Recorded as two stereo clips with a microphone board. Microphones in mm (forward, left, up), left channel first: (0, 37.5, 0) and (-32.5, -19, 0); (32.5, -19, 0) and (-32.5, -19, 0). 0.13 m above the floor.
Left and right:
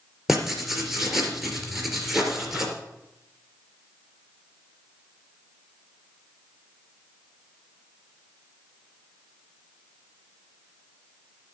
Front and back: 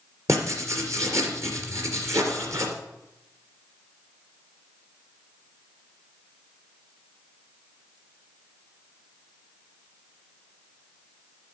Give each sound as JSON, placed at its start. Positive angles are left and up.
{"t": 0.3, "sound": "writing", "azimuth_deg": 150, "distance_m": 3.0}